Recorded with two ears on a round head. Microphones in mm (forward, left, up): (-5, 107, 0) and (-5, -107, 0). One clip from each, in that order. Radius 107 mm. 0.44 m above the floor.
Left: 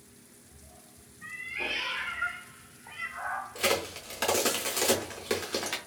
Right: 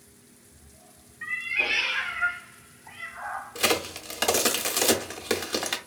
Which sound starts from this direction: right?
A cat meowing, at 1.2 s.